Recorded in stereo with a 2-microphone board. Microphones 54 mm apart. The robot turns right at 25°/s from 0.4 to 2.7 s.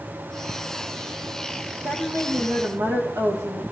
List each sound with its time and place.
1.8 s a woman speaking: 60° right (ahead or behind), 4 m; by 3.6 s 70° right (ahead or behind), 4 m